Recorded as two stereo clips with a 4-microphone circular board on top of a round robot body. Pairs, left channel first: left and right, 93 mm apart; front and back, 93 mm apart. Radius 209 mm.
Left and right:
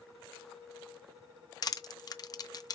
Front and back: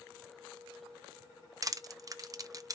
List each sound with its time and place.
1.6 s crushing: 135° left, 0.7 m